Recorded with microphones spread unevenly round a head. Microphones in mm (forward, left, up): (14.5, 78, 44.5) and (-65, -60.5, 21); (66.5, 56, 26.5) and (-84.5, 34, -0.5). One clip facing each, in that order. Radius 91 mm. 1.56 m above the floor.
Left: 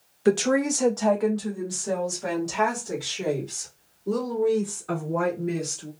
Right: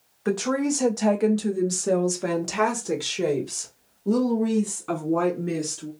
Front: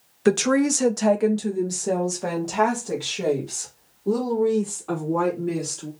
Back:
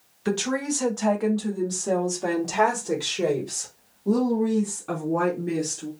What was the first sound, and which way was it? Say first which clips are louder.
A woman speaking: left 3 dB, front 7 dB; 10° left.